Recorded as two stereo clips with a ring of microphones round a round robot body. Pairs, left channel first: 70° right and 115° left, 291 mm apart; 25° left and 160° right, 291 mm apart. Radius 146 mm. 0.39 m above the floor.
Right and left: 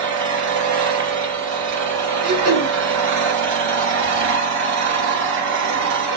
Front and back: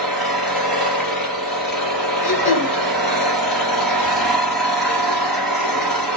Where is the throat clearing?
80° left, 1.7 m.